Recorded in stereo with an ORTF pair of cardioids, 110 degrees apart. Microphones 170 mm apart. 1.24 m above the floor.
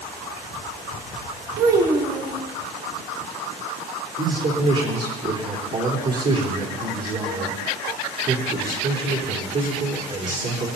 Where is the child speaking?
65° right, 4 m.